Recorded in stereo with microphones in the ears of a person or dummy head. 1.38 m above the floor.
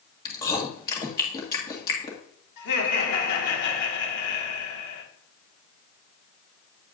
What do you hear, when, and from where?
0.2 s chewing: 25° left (ahead or behind), 1.6 m
2.6 s laughter: 60° left (ahead or behind), 3 m